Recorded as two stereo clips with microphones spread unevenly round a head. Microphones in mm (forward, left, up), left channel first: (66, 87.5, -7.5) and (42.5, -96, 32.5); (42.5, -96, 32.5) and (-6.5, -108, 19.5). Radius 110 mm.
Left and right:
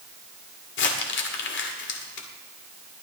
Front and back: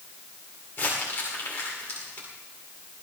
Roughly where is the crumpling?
Ahead left.